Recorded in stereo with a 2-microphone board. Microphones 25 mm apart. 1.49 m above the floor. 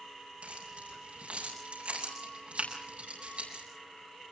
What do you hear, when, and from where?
0.4 s keys jangling: 65° right (ahead or behind), 8 m